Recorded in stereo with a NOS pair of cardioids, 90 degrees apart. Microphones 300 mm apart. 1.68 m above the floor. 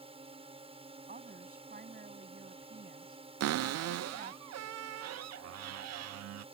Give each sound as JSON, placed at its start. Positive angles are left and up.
{"t": 0.0, "sound": "a drone", "azimuth_deg": -20}
{"t": 1.1, "sound": "a woman speaking", "azimuth_deg": -25}
{"t": 3.4, "sound": "a cupboard door", "azimuth_deg": -55}